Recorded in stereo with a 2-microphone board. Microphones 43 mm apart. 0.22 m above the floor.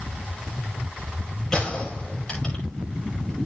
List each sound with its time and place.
1.5 s a gunshot: 5° left (ahead or behind), 8 m